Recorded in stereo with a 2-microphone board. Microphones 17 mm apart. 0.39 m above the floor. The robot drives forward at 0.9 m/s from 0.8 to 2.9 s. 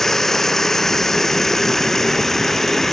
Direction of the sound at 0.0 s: 20° left (ahead or behind).